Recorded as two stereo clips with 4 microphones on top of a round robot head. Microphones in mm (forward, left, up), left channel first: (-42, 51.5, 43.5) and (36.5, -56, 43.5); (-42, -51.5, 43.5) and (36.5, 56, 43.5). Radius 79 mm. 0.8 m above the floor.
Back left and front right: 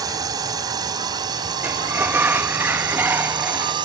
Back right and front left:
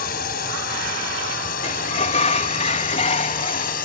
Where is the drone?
115° right; by 3.9 s 110° right.